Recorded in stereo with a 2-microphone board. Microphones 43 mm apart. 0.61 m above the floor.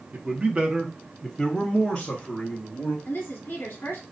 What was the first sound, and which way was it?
A man speaking, 40° right (ahead or behind).